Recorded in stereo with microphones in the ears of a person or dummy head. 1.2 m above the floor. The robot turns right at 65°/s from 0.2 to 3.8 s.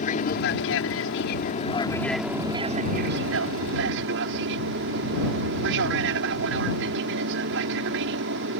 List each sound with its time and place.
0.0 s an aircraft: 50° left; by 8.6 s 75° right